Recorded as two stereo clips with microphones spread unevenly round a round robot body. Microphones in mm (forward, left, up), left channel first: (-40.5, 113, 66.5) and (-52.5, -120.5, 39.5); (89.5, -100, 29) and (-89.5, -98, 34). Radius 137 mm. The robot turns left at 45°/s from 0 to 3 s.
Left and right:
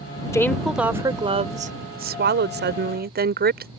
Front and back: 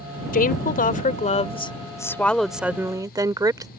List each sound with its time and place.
0.3 s a woman speaking: 5° left; by 3.7 s 115° right